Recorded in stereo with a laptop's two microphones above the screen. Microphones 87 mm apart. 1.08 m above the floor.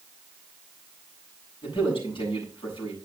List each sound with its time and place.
1.6 s a man speaking: 90° left, 6 m